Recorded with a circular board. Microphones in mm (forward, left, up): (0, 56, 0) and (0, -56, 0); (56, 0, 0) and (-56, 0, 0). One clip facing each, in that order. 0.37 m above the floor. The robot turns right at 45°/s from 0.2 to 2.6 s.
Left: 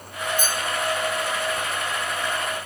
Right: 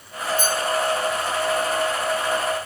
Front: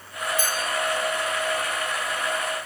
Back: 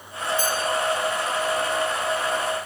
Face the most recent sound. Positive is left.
turn(degrees=105)